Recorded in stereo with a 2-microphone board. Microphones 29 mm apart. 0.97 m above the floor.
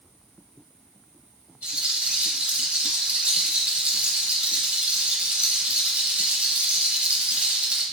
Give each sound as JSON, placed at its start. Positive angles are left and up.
{"t": 1.6, "sound": "a rattle", "side_deg": -40, "distance_m": 0.8}